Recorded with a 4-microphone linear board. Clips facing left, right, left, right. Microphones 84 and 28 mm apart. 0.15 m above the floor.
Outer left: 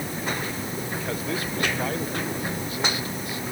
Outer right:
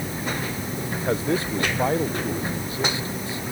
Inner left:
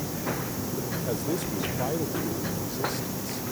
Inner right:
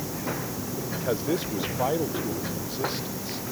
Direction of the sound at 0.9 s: 30° right (ahead or behind).